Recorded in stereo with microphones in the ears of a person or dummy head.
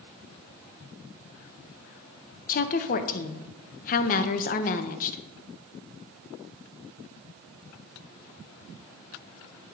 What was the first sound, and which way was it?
A woman speaking, 45° left (ahead or behind).